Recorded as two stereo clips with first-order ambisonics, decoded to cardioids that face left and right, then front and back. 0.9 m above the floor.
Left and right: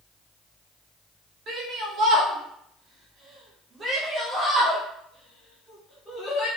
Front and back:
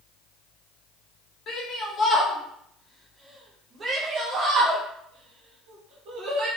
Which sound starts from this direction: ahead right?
A shout, at 1.5 s.